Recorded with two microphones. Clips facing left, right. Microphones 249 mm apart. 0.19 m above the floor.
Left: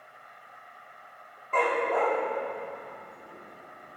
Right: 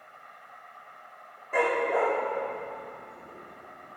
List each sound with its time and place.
0.0 s an insect: 15° left (ahead or behind), 4.5 m
1.5 s a dog barking: 10° right (ahead or behind), 4 m